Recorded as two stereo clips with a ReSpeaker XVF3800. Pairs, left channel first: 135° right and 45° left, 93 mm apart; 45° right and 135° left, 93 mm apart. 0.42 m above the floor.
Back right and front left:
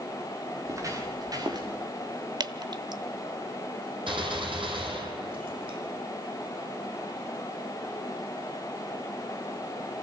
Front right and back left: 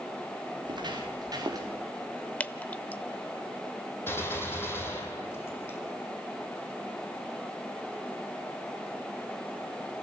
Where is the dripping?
25° left, 0.7 m.